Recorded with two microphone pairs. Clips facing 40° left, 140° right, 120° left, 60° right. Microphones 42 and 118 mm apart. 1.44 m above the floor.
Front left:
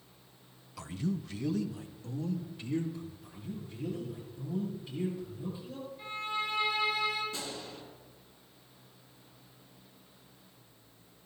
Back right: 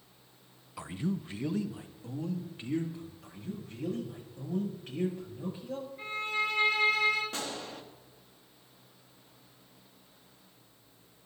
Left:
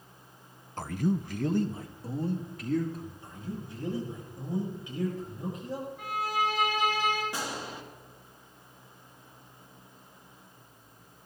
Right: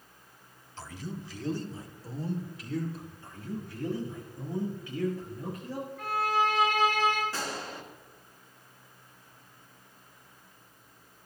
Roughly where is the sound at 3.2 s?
Behind.